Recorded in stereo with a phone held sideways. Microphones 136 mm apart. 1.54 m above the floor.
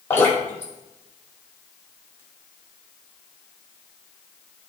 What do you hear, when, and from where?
0.1 s dripping: 20° left (ahead or behind), 4.5 m